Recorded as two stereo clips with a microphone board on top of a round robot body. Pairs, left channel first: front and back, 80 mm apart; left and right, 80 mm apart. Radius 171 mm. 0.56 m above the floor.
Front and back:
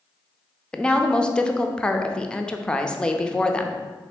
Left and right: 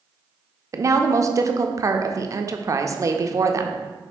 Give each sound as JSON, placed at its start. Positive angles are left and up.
{"t": 0.7, "sound": "a woman speaking", "azimuth_deg": -75, "distance_m": 0.7}